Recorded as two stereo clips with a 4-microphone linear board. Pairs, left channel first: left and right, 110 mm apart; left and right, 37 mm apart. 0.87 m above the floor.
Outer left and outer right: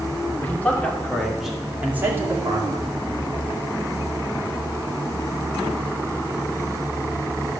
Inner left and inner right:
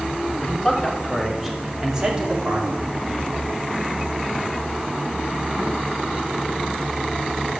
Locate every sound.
0.4 s a man speaking: 15° left (ahead or behind), 3 m; by 2.9 s 40° right (ahead or behind), 2.5 m